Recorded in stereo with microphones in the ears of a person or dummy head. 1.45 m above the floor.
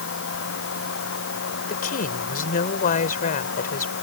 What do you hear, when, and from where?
0.0 s a fan: 65° left (ahead or behind)
1.7 s a woman speaking: 45° left (ahead or behind)